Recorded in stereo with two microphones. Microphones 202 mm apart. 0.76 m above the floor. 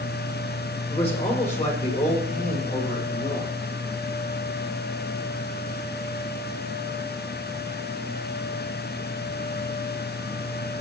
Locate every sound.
0.9 s a man speaking: 30° left (ahead or behind), 3 m; by 3.5 s 50° left (ahead or behind), 4.5 m